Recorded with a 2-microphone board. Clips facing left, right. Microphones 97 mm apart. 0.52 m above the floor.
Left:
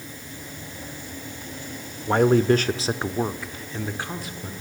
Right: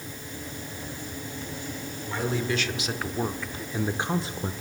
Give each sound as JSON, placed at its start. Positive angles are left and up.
{"t": 2.1, "sound": "a man speaking", "side_deg": 55, "distance_m": 1.2}